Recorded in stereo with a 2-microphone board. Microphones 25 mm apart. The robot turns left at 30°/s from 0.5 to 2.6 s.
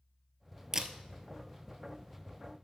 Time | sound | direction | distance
0.7 | a camera shutter | 20° right (ahead or behind) | 0.6 m